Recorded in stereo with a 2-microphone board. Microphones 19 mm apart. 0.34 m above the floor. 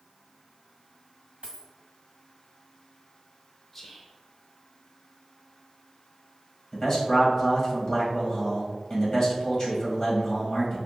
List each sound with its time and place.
1.4 s a dropped coin: 75° right (ahead or behind), 1.6 m
3.7 s whispering: 5° left (ahead or behind), 0.9 m
6.7 s a man speaking: 30° left (ahead or behind), 1.8 m